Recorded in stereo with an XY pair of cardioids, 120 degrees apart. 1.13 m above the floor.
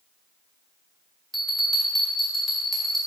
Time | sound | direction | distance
1.3 | a bell | 10° left | 1.9 m